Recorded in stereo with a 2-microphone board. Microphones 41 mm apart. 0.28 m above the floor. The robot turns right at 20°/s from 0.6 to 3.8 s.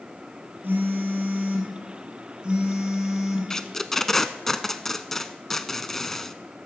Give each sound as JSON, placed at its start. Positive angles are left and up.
{"t": 0.6, "sound": "a phone buzzing", "azimuth_deg": -60, "distance_m": 4.0}
{"t": 3.5, "sound": "tape being pulled", "side_deg": 15, "distance_m": 0.6}